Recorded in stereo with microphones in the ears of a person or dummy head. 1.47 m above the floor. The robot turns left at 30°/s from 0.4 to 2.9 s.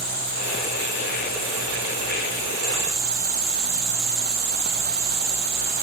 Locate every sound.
0.0 s an insect: 5° right, 2.5 m; by 5.8 s 80° right, 2.5 m